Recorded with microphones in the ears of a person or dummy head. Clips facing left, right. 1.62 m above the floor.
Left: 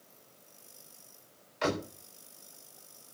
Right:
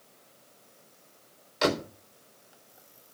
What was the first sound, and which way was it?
A door slam, 55° right (ahead or behind).